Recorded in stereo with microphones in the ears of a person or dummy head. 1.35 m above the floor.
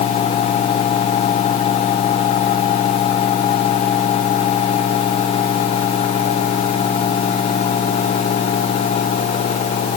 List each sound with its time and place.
Only background noise.